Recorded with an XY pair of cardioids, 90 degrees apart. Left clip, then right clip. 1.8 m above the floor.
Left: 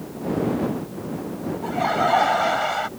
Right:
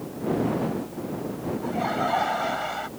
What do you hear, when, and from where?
1.6 s laughter: 35° left; by 2.9 s 45° left